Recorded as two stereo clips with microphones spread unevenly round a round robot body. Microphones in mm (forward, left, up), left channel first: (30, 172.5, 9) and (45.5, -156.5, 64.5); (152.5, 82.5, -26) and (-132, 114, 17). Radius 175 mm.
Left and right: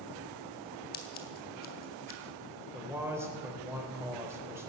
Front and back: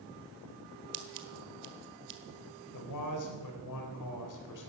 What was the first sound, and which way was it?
Scissors, 160° left.